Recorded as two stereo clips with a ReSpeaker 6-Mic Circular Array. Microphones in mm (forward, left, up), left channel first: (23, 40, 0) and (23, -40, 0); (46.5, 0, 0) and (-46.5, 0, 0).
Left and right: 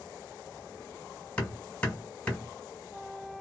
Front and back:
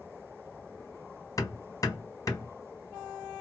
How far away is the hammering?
About 1.6 m.